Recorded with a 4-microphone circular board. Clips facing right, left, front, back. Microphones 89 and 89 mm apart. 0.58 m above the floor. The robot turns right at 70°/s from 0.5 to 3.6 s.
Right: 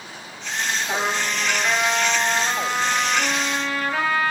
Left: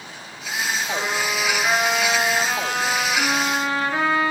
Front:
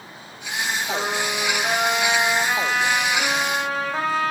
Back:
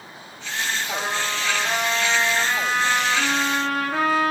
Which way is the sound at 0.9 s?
30° right.